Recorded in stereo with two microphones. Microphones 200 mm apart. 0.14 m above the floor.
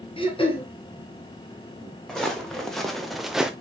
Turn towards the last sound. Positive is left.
turn(degrees=-5)  # may be behind; listen again after turning